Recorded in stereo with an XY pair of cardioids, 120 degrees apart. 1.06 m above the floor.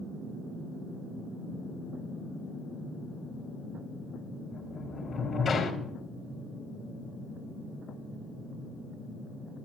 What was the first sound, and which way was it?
A sliding door, 35° left.